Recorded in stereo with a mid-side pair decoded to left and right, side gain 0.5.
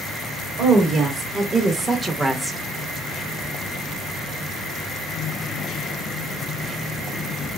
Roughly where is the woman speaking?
Ahead right.